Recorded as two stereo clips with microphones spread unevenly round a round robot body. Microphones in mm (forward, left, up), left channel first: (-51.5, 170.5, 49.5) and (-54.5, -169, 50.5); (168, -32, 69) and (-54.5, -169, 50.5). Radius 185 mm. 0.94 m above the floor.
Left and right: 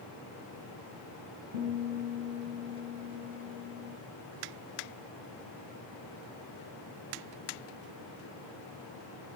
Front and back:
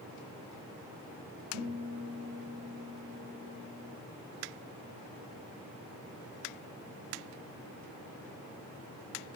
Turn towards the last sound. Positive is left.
turn(degrees=-135)